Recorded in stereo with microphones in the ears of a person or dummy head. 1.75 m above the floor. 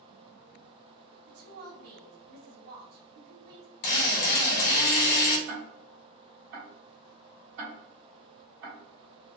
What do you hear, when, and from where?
1.3 s a woman speaking: 60° right (ahead or behind), 1.3 m
3.8 s a drill: 55° left (ahead or behind), 0.9 m
5.5 s ticking: 70° right (ahead or behind), 1.7 m